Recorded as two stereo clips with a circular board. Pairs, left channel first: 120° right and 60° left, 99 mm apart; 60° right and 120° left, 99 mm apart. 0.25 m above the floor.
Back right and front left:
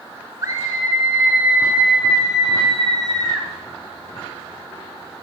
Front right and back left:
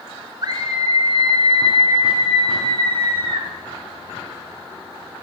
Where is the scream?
105° left, 2 m; by 3.5 s 155° left, 4 m.